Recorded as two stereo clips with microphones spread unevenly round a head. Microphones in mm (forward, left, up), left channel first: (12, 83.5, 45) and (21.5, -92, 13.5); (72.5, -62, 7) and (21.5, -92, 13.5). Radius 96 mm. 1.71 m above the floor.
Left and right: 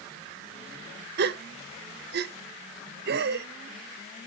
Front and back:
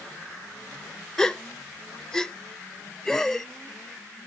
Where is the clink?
No clink in this recording.